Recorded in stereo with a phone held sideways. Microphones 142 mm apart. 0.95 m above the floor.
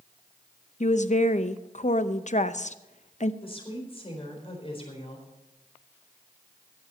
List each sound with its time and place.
0.8 s a woman speaking: 55° left (ahead or behind), 0.6 m
3.4 s a woman speaking: 40° left (ahead or behind), 4 m